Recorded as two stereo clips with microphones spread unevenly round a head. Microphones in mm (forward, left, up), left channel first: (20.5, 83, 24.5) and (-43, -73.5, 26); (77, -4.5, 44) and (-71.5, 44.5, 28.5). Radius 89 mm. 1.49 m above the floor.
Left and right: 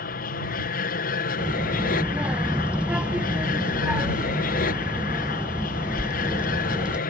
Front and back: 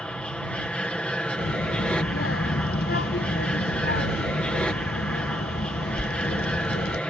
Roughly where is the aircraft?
Ahead left.